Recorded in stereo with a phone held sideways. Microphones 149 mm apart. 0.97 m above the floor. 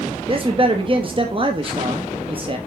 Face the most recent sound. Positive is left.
turn(degrees=-35)  # may be behind; listen again after turning